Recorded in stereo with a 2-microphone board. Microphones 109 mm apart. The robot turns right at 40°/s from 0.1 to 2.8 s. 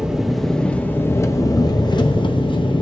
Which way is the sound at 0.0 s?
10° right.